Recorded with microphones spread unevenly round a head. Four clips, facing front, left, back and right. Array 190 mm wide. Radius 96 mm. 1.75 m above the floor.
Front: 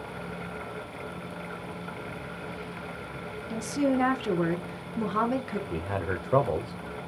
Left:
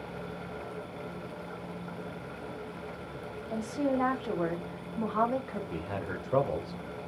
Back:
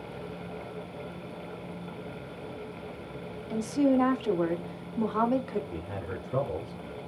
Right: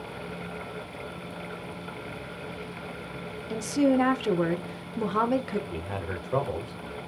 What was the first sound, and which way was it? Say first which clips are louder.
A woman speaking: right 7 dB, back 2 dB; 80° right.